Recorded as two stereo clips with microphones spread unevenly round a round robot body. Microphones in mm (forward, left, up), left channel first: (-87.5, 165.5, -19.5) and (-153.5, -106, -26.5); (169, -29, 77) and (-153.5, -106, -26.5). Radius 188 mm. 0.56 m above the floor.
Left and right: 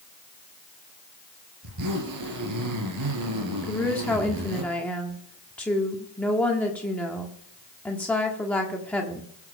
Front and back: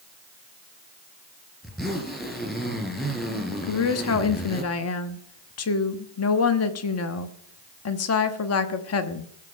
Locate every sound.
1.6 s a zipper: 75° right, 2.5 m
3.6 s a woman speaking: 5° right, 1.3 m